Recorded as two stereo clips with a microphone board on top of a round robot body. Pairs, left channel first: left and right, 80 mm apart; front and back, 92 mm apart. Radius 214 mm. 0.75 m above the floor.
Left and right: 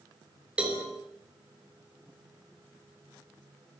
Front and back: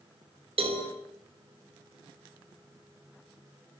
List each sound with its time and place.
0.6 s a cowbell: 165° right, 5 m